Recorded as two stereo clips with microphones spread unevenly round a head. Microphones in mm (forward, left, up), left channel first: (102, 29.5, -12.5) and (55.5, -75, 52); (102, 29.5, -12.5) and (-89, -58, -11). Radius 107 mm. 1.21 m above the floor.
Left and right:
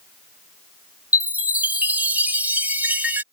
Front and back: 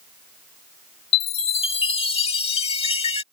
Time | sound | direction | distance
1.1 | a chime | 40° right | ?